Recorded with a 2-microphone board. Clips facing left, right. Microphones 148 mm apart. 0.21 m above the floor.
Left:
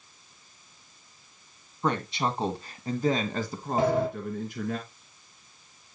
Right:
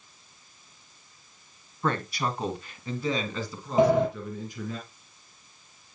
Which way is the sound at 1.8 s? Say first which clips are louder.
Left 1 dB; 15° left (ahead or behind).